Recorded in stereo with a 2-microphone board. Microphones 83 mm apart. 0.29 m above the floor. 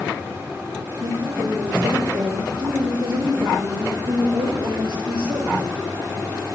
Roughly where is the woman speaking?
Right.